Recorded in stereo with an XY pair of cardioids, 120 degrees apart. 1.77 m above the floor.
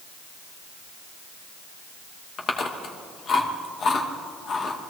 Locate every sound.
2.4 s chewing: 45° left, 2.5 m